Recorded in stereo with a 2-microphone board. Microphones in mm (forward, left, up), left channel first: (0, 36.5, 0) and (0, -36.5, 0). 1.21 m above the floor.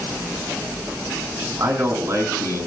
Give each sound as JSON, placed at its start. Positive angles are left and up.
{"t": 1.6, "sound": "a man speaking", "side_deg": -40, "distance_m": 6.5}